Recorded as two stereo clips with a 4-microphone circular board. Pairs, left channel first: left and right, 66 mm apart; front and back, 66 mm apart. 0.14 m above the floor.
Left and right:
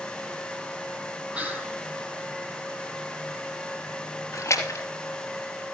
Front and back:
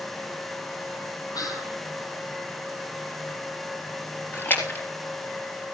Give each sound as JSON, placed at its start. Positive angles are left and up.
{"t": 1.3, "sound": "whispering", "azimuth_deg": -20, "distance_m": 5.0}
{"t": 4.3, "sound": "a splash", "azimuth_deg": 55, "distance_m": 3.0}